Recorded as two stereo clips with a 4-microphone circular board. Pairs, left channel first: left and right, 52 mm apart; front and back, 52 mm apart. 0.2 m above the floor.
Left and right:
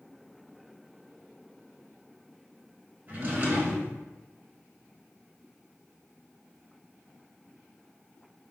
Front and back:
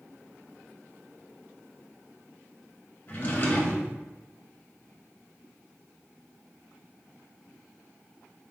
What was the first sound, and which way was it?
A drawer, 45° right.